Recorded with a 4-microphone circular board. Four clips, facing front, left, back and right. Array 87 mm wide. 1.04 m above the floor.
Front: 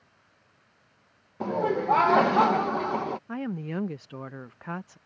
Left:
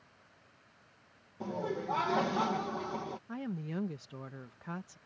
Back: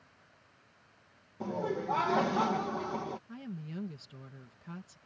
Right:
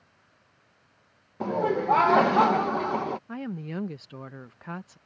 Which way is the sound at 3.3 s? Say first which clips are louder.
Right 4 dB, front 11 dB; 20° right.